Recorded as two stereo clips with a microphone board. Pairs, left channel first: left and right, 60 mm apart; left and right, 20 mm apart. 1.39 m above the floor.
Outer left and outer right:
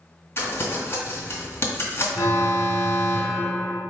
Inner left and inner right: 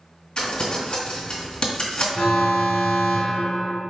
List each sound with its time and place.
0.4 s crumpling: 40° left (ahead or behind), 1.5 m
2.1 s an alarm: 70° left (ahead or behind), 1.4 m